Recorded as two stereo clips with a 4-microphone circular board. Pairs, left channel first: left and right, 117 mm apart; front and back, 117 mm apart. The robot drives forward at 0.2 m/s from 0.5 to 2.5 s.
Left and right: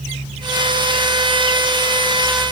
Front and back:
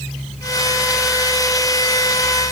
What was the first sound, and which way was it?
Only background noise.